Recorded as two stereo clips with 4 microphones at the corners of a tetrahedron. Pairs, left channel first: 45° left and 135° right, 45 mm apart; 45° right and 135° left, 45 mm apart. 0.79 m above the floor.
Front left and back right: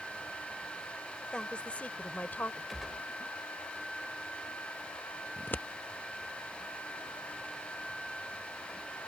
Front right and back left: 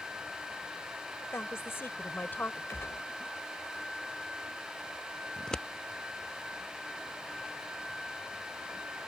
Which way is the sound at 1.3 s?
25° right.